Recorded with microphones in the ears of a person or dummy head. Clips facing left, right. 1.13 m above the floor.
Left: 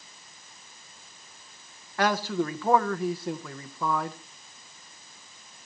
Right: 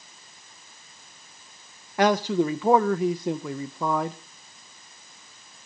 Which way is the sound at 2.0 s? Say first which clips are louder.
Right 5 dB; 15° right (ahead or behind).